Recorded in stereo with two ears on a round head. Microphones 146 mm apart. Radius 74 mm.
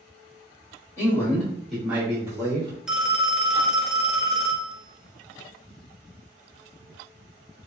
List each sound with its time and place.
1.0 s a man speaking: 20° left (ahead or behind), 1.1 m; by 2.8 s 30° right (ahead or behind), 0.9 m
2.9 s a phone ringing: 5° right (ahead or behind), 0.5 m